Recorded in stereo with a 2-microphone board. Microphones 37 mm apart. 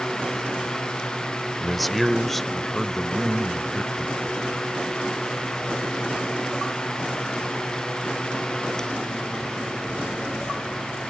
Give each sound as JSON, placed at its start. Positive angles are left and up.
{"t": 1.6, "sound": "a man speaking", "side_deg": 0}